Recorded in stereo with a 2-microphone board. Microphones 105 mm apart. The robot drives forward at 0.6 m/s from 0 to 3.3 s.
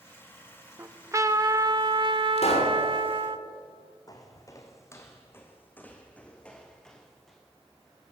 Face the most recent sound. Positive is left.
turn(degrees=5)  # may be behind; listen again after turning